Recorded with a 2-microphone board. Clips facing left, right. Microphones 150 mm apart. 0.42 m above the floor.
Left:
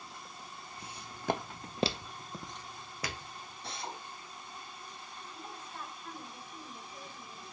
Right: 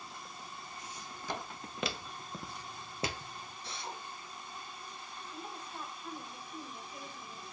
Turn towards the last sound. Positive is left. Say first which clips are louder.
# right 2 dB
turn(degrees=-15)  # may be behind; listen again after turning